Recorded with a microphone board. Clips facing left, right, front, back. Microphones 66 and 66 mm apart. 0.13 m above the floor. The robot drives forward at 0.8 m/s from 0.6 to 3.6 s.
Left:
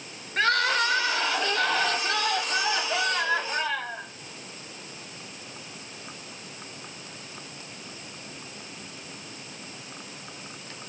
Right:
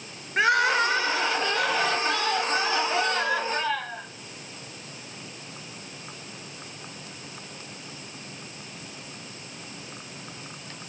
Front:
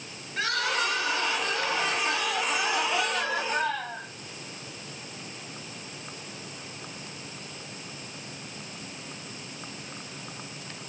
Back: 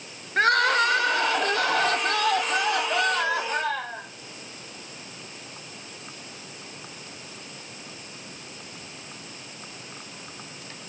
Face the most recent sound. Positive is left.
turn(degrees=-175)